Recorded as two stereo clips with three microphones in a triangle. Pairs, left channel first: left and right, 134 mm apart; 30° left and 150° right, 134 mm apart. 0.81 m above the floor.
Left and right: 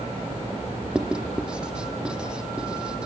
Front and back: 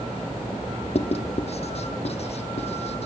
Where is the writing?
5° right, 1.2 m.